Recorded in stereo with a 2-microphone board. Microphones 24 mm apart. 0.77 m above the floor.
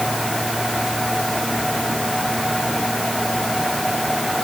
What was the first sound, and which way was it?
Only background noise.